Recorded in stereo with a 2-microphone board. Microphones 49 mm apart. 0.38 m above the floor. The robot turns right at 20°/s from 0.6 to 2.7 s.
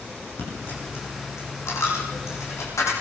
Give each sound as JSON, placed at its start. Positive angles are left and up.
{"t": 0.4, "sound": "a dropped coin", "side_deg": 45, "distance_m": 9.5}